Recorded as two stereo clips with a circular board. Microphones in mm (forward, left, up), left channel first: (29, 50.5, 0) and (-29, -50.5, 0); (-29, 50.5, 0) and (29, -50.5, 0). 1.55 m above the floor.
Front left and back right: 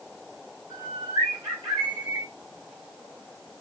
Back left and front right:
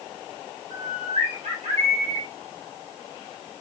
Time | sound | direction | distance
0.7 | a bird | 65° right | 1.4 m